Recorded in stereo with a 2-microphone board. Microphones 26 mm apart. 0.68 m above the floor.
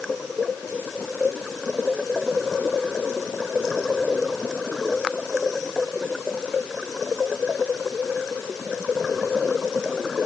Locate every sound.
Only background noise.